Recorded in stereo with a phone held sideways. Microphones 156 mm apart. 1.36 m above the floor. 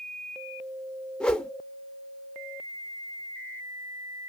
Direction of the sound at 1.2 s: 5° left (ahead or behind).